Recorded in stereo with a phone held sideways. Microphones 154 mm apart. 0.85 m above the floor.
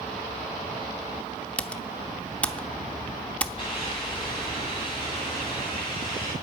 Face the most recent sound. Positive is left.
turn(degrees=35)  # may be behind; listen again after turning